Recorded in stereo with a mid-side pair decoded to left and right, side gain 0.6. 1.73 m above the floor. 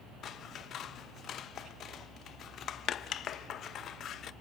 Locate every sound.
0.2 s scissors: 50° left, 0.6 m